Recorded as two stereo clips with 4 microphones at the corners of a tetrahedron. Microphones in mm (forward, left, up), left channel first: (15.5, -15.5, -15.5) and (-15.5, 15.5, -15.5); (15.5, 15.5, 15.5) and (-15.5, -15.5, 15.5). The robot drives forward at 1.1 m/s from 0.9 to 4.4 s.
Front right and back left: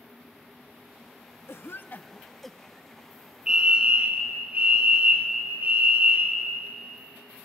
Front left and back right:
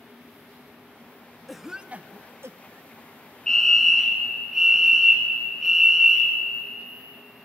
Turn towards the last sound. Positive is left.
turn(degrees=150)